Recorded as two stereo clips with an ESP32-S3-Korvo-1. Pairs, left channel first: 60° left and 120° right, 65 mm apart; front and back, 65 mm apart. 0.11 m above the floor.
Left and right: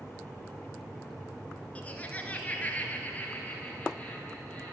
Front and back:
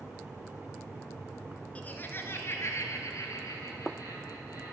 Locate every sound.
1.8 s laughter: 30° left, 1.1 m; by 4.7 s 5° right, 2.5 m